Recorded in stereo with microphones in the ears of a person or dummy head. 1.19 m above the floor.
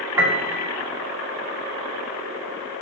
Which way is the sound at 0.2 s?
15° right (ahead or behind).